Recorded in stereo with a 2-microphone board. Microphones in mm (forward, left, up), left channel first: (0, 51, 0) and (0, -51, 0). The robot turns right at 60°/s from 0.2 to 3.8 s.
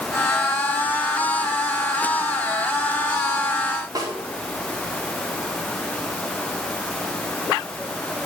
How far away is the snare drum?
About 5 m.